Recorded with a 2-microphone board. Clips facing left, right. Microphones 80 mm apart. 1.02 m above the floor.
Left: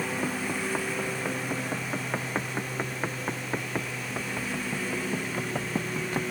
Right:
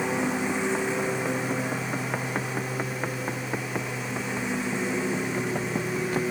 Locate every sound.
0.0 s a lawn mower: 25° right (ahead or behind)